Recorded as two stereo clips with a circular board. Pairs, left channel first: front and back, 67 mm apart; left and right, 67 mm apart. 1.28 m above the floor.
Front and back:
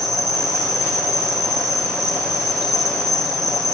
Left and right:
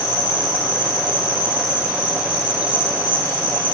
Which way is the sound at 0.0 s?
170° right.